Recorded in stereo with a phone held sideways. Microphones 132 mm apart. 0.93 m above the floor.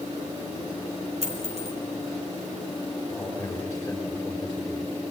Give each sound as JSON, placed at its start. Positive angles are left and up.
{"t": 1.2, "sound": "a dropped coin", "side_deg": -55, "distance_m": 3.0}
{"t": 3.1, "sound": "a man speaking", "side_deg": 5, "distance_m": 4.5}